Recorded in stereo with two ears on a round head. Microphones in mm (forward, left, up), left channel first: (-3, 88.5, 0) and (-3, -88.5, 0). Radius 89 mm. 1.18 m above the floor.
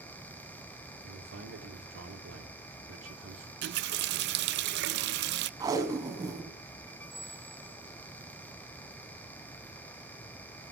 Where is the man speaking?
70° right (ahead or behind), 3.5 m.